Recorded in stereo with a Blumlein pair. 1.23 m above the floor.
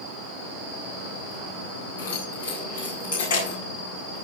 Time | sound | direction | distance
2.0 | keys jangling | 60° left | 9 m